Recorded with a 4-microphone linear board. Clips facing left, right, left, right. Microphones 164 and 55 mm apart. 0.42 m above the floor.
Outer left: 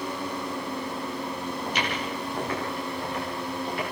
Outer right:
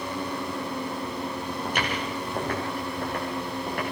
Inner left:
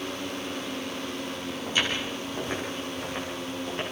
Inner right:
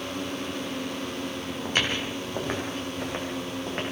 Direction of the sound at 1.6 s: 50° right (ahead or behind).